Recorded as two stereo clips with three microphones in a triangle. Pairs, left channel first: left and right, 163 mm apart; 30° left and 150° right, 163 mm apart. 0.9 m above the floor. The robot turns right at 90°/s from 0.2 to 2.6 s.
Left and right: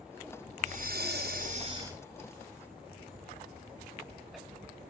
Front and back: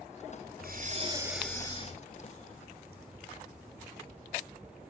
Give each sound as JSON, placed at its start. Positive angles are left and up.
{"t": 0.6, "sound": "breathing", "azimuth_deg": -130, "distance_m": 4.0}